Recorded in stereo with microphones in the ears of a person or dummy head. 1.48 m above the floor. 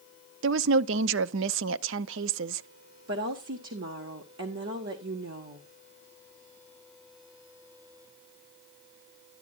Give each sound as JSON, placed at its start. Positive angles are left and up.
{"t": 0.4, "sound": "a woman speaking", "side_deg": -75, "distance_m": 0.6}
{"t": 3.1, "sound": "a woman speaking", "side_deg": -70, "distance_m": 1.3}